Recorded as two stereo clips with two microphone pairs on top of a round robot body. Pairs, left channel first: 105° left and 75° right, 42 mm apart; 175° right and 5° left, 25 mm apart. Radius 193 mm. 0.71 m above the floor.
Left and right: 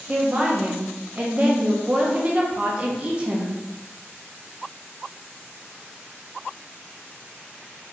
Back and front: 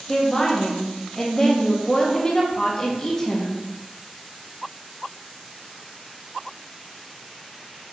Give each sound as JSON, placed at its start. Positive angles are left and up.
{"t": 0.1, "sound": "a woman speaking", "azimuth_deg": -130, "distance_m": 1.0}